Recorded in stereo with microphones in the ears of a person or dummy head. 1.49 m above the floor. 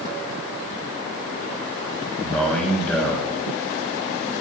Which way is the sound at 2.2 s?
10° left (ahead or behind).